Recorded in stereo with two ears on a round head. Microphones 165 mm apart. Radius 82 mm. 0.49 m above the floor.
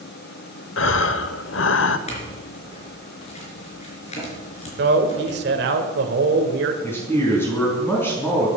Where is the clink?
35° left (ahead or behind), 4 m.